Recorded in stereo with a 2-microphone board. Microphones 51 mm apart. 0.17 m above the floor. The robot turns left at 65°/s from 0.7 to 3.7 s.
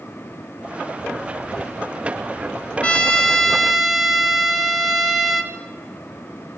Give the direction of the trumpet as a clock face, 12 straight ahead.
10 o'clock.